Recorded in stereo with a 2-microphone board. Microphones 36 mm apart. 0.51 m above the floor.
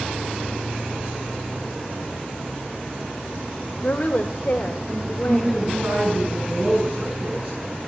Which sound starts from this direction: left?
A woman speaking, at 3.8 s.